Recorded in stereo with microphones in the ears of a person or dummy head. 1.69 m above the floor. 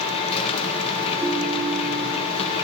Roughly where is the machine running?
Left.